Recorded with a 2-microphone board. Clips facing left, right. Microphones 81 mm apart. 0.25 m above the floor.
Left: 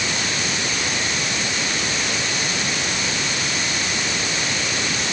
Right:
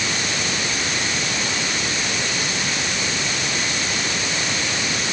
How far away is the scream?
I don't hear a scream.